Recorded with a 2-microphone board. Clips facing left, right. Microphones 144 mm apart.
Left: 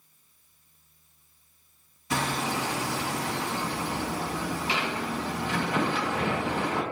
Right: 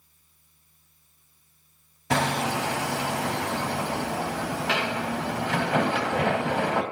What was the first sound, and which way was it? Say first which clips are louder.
Hammering: right 4 dB; 80° right.